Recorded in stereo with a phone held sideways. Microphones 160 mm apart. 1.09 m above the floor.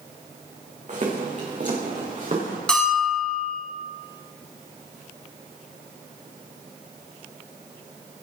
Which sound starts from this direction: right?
Footsteps, at 0.9 s.